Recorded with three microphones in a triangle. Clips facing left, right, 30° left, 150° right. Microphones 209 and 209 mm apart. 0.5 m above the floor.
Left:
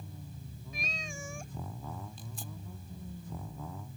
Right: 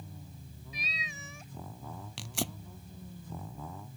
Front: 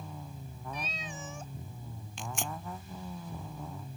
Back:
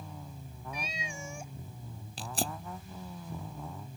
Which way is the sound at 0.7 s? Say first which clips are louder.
Left 4 dB, back 1 dB; 130° left.